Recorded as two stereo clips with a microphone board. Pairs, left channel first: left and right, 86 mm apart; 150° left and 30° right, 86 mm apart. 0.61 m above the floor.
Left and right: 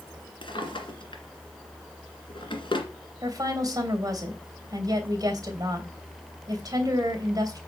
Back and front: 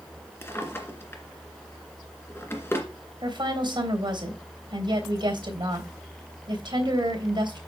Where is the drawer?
90° left, 1.9 m.